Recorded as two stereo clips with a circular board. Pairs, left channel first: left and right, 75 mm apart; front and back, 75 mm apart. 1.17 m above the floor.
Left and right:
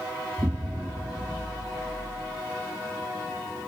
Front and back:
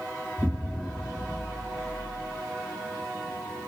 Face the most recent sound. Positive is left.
turn(degrees=-125)